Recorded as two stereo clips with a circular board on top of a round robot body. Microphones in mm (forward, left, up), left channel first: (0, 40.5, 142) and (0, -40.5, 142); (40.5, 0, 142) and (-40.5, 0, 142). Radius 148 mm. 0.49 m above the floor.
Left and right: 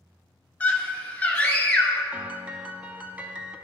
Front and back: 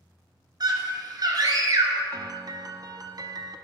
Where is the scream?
155° left, 2 m.